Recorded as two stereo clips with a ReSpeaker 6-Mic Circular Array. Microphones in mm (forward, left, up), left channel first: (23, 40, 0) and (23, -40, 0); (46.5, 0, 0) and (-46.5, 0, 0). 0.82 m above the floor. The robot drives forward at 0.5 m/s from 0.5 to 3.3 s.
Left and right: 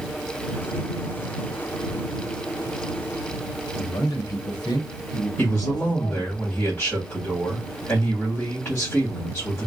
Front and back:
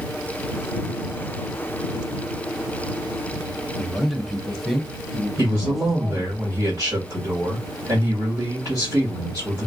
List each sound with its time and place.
3.8 s a man speaking: 90° left, 1.1 m
5.4 s a man speaking: 155° left, 1.6 m